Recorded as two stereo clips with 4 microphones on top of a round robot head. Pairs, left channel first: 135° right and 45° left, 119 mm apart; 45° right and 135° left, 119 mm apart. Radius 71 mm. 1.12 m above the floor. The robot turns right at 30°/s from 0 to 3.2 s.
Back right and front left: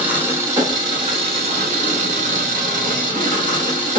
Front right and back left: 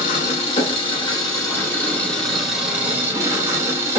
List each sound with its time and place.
0.0 s an engine running: 30° right, 0.9 m; by 4.0 s 70° left, 0.9 m